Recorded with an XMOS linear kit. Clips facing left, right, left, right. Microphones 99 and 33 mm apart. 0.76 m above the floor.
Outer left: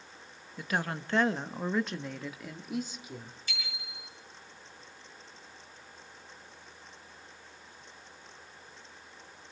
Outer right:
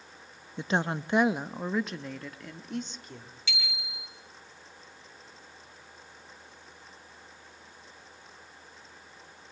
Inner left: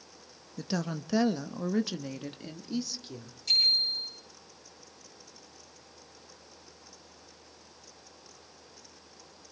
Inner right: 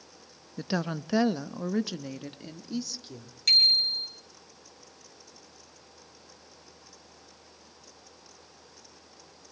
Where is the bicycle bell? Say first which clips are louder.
Outer right 4 dB, inner right 4 dB; 85° right, 8.5 m.